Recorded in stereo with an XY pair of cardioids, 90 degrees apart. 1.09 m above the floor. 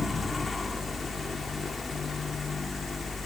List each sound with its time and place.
0.0 s a fan: 25° left, 1.5 m